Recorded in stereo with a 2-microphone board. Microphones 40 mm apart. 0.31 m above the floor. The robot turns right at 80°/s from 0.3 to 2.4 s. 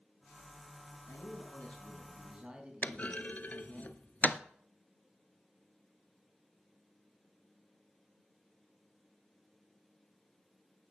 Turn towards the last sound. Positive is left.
turn(degrees=40)  # may be behind; listen again after turning